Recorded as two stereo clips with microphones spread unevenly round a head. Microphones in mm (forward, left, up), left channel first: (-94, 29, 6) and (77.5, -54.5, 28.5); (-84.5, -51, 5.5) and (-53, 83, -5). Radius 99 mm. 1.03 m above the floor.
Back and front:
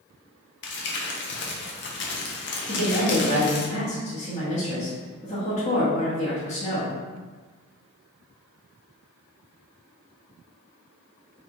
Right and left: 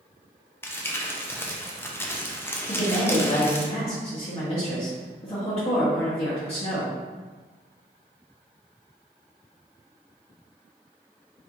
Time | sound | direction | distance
0.6 | crumpling | straight behind | 0.7 m
2.7 | a woman speaking | 150° right | 1.1 m